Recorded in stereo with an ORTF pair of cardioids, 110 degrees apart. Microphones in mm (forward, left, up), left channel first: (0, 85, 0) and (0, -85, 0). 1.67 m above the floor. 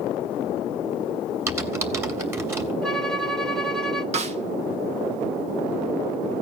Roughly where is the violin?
Ahead.